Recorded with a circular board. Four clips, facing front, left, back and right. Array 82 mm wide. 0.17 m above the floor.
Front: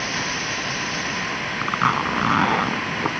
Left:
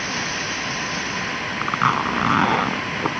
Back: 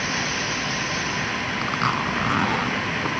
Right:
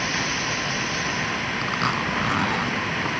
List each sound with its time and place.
1.6 s a zipper: 55° left